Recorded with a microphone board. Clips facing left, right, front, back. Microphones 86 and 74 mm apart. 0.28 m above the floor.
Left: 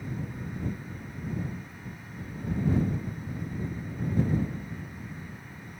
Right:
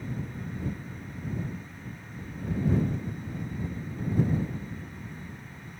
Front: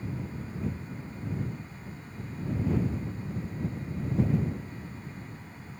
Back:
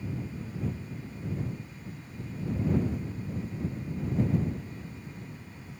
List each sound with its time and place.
Only background noise.